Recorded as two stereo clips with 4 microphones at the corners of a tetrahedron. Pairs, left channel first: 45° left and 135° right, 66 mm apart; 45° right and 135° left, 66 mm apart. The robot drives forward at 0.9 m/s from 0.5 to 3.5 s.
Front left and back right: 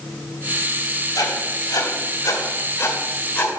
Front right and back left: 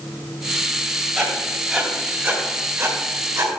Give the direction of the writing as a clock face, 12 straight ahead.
10 o'clock.